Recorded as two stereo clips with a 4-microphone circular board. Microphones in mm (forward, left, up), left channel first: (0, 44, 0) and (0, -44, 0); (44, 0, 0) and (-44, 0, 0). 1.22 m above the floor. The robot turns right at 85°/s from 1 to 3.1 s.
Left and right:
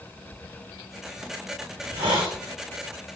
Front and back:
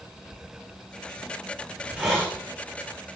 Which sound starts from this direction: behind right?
A hiss, at 1.7 s.